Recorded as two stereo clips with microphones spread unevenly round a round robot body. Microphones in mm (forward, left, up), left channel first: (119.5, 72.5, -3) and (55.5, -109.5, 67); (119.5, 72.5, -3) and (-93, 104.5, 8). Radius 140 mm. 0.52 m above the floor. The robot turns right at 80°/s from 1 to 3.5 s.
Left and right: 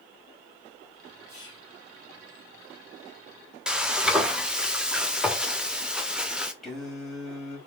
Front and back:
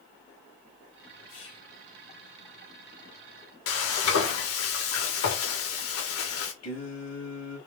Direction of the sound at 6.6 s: 15° right.